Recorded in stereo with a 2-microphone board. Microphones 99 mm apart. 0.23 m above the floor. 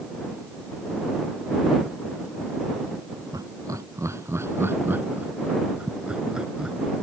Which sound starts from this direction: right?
Laughter, at 3.3 s.